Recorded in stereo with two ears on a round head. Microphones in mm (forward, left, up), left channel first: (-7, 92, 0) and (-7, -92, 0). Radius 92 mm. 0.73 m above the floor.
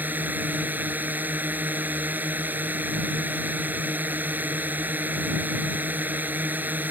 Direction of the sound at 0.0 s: 10° right (ahead or behind).